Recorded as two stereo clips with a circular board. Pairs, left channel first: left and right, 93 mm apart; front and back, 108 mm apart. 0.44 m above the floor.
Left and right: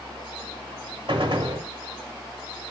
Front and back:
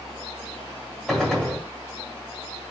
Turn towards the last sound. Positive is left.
turn(degrees=-90)